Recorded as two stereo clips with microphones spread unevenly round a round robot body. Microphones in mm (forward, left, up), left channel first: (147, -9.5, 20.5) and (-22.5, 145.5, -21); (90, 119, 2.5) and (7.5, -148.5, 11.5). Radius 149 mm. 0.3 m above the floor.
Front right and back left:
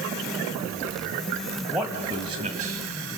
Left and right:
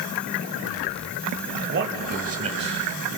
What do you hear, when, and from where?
1.6 s a man speaking: 140° right, 1.1 m; by 2.8 s straight behind, 1.5 m